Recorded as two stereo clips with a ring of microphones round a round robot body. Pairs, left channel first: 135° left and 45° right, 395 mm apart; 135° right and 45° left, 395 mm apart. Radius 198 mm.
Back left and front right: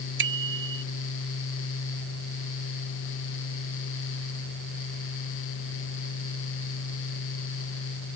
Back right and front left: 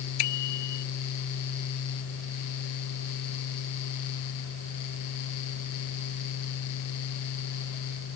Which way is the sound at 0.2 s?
105° right.